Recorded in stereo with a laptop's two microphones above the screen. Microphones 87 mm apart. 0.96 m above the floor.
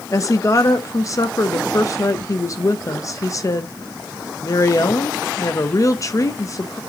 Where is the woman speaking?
40° left (ahead or behind), 0.9 m.